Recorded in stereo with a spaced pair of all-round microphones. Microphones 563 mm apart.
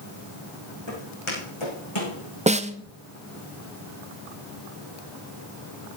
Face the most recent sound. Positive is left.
turn(degrees=-15)  # may be behind; listen again after turning